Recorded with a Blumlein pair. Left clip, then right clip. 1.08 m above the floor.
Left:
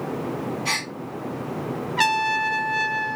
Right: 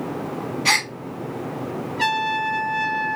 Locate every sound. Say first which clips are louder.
0.7 s a gasp: right 8 dB; 50° right, 0.8 m
2.0 s a trumpet: left 1 dB; 40° left, 0.6 m